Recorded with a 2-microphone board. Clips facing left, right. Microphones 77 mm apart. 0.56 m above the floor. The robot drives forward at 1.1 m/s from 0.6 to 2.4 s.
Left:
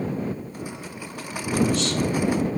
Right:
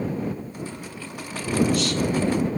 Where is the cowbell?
No cowbell in this recording.